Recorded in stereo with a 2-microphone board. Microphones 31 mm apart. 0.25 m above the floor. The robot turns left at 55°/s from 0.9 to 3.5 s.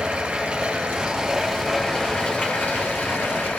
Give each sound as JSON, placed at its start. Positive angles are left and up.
{"t": 0.0, "sound": "running water", "azimuth_deg": -145, "distance_m": 4.0}